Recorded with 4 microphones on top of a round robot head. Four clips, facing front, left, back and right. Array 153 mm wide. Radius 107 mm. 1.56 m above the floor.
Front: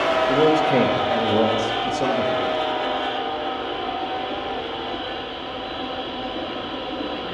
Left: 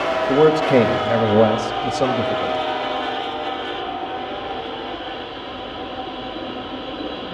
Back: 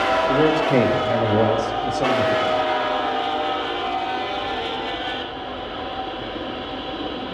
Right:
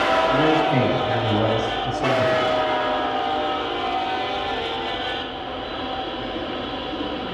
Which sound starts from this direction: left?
A man speaking, at 0.3 s.